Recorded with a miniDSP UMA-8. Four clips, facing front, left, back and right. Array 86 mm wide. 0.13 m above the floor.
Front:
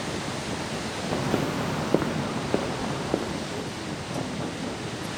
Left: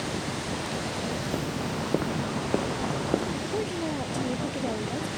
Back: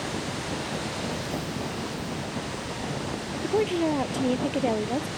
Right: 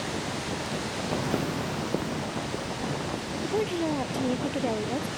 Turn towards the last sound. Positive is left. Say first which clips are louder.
# right 3 dB, back 9 dB
turn(degrees=-165)